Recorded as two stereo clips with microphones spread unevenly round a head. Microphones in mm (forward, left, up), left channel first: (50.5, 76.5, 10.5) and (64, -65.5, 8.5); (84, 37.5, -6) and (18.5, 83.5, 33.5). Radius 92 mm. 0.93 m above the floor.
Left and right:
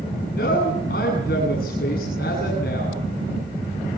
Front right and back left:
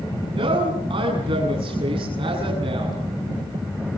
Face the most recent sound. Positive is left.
turn(degrees=140)